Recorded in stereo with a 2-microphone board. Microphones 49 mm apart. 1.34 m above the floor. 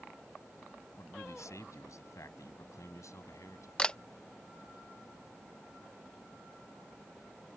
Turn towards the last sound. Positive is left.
turn(degrees=20)  # may be behind; listen again after turning